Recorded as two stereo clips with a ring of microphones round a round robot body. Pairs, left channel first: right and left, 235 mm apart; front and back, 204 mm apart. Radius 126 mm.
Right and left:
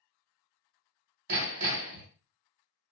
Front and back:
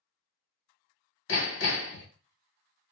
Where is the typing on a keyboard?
I don't hear typing on a keyboard.